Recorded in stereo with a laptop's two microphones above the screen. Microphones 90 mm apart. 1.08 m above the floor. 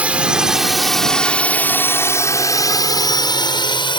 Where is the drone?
15° right (ahead or behind); by 4.0 s 60° left (ahead or behind).